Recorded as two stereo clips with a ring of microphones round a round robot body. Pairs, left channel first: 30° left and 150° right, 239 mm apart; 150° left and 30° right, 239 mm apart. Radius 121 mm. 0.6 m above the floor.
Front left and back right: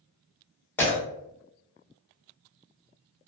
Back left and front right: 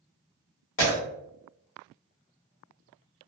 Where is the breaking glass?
110° left, 1.2 m.